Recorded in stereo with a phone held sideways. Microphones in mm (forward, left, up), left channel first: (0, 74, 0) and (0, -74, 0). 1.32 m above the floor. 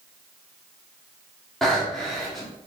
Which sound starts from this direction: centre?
Breathing, at 1.6 s.